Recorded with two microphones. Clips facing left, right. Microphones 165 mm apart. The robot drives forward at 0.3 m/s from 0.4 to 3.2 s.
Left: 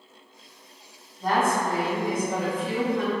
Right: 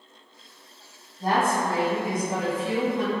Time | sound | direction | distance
1.2 | a woman speaking | 30° right (ahead or behind) | 1.2 m